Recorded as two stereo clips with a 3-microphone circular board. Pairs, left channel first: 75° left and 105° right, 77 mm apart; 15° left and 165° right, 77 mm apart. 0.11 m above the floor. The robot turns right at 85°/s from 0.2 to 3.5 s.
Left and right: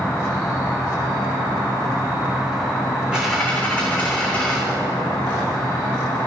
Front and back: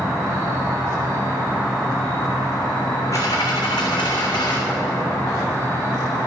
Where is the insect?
145° left, 7 m; by 6.3 s 65° left, 7 m.